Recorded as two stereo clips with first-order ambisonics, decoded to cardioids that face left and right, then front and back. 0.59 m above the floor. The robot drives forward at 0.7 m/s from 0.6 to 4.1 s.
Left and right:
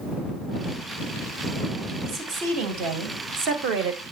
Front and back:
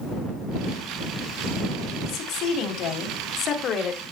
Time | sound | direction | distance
2.0 | a woman speaking | 40° right | 3 m